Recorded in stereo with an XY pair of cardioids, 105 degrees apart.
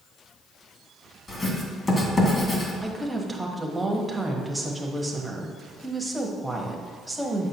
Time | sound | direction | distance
1.3 | writing | 30° left | 2.5 m
2.8 | a woman speaking | 5° right | 1.4 m